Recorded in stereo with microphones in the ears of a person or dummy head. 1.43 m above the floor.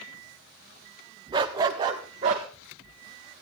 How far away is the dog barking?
About 1.3 m.